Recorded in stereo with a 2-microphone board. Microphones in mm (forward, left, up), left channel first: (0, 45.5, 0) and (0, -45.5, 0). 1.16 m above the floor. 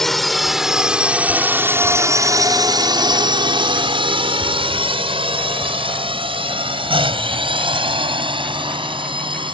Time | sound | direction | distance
0.0 | a drone | 5° left (ahead or behind) | ?